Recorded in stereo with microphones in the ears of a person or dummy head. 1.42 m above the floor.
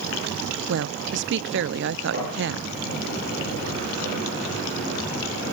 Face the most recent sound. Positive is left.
turn(degrees=-50)  # may be behind; listen again after turning